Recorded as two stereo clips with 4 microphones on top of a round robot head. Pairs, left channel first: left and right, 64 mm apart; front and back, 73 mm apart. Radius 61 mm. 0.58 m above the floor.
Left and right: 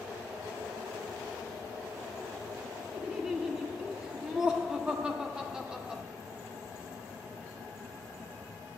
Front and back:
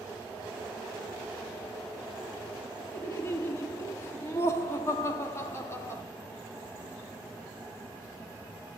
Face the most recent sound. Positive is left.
turn(degrees=-20)